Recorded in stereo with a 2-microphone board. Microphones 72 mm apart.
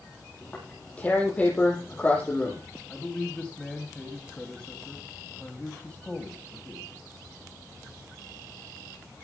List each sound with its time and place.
0.4 s tearing paper: 20° left (ahead or behind), 9.5 m
2.9 s a man speaking: 15° left (ahead or behind), 3 m